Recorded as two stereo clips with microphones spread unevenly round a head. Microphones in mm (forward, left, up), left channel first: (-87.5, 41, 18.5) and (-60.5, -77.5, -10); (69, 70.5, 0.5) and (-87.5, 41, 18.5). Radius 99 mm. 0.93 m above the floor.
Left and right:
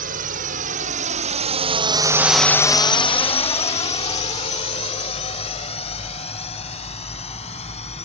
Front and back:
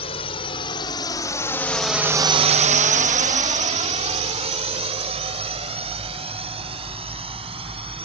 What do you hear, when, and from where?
0.0 s a drone: 55° right; by 8.1 s 135° left